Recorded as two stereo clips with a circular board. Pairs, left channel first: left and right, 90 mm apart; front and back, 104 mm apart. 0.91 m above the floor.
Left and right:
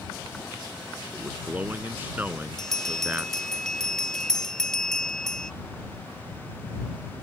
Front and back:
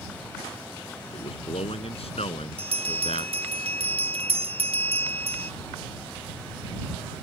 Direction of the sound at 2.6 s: 175° left.